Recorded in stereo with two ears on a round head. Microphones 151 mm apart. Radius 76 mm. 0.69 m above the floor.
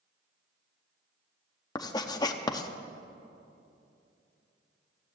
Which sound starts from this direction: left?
Writing, at 1.8 s.